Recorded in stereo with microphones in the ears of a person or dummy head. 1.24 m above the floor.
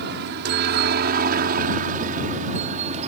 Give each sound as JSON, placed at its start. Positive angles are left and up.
{"t": 0.0, "sound": "a helicopter", "side_deg": -55}